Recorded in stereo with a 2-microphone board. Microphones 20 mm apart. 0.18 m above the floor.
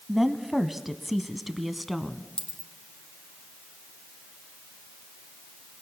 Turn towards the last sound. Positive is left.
turn(degrees=45)  # may be behind; listen again after turning